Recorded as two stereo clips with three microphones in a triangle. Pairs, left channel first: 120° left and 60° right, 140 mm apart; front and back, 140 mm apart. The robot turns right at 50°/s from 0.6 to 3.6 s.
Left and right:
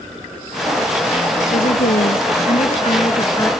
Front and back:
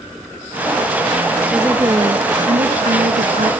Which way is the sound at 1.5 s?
95° left.